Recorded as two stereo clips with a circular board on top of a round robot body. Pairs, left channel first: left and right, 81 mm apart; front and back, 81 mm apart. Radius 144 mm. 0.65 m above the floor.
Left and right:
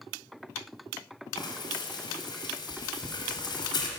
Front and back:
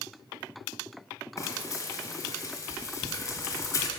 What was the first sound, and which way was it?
Frying, 55° left.